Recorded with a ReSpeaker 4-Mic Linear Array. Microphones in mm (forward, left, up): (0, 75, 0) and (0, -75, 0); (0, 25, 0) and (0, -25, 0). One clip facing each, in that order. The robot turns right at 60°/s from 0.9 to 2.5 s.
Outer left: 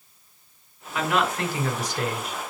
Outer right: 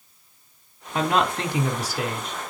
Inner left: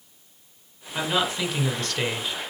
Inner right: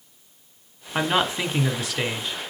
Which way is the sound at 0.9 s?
70° right.